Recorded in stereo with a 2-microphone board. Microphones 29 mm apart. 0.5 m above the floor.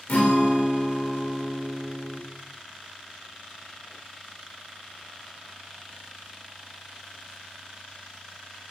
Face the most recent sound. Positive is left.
turn(degrees=60)  # may be behind; listen again after turning